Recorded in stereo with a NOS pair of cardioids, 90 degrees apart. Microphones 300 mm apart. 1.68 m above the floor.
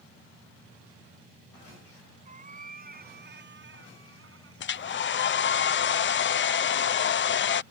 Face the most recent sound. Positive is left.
turn(degrees=40)